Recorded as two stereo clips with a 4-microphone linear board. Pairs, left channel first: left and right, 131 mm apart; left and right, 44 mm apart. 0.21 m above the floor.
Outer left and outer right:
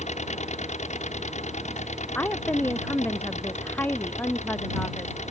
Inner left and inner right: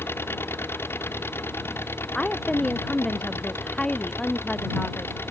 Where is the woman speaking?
15° left (ahead or behind).